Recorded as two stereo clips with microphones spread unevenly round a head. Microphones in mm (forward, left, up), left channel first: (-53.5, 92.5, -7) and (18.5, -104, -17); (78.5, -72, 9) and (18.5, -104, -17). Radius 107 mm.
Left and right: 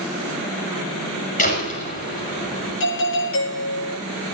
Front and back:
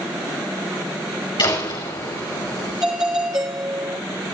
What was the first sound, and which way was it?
A door slam, 55° left.